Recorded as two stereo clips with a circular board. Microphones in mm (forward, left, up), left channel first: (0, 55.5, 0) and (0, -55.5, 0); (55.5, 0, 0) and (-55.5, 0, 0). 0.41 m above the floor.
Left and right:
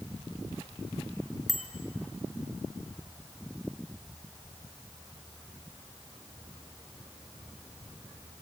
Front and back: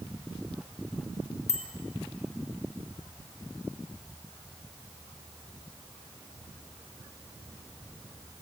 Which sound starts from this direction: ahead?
A bicycle bell, at 1.5 s.